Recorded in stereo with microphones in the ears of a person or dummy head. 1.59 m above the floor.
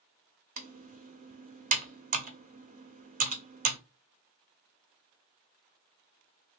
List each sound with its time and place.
0.6 s typing on a keyboard: 35° right (ahead or behind), 0.6 m